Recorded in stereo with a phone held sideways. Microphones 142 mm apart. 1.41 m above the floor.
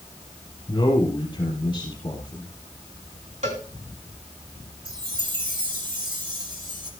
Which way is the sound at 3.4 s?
50° right (ahead or behind).